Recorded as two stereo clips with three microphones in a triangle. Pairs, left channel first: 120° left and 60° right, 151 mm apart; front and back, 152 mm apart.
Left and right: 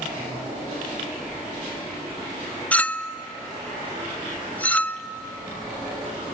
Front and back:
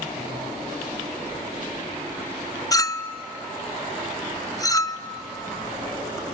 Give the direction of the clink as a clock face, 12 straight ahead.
10 o'clock.